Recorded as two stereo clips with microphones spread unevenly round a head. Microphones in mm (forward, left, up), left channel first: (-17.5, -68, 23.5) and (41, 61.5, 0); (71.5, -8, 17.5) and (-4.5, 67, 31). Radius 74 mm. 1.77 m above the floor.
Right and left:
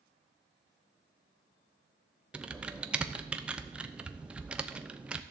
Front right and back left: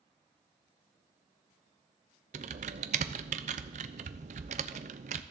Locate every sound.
2.3 s typing on a keyboard: 155° left, 0.8 m